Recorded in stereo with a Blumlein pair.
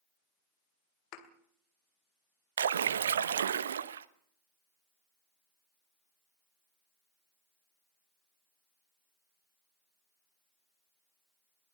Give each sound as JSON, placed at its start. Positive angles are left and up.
{"t": 1.1, "sound": "a thud", "azimuth_deg": 40, "distance_m": 2.5}
{"t": 2.6, "sound": "a splash", "azimuth_deg": -65, "distance_m": 1.0}